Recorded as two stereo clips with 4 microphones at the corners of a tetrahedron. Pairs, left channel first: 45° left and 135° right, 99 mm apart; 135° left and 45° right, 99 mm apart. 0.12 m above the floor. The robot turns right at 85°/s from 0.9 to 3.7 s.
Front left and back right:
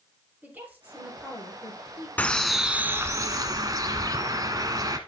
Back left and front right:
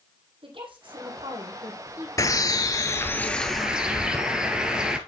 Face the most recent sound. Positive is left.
turn(degrees=-120)